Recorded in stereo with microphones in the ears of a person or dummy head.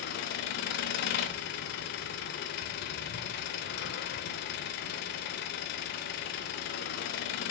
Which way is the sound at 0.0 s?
45° left (ahead or behind).